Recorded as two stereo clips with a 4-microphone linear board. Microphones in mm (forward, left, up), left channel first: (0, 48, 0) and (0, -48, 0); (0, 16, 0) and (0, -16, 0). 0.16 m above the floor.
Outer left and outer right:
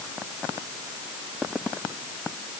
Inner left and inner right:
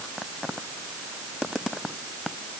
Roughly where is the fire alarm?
No fire alarm in this recording.